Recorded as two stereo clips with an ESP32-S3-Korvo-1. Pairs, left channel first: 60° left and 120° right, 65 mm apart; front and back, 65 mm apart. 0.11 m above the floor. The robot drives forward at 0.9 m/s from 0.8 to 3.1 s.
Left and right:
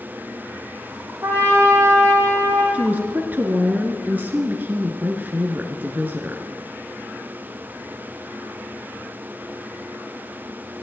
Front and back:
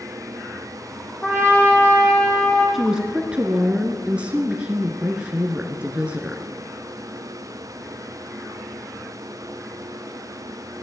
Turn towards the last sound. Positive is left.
turn(degrees=-130)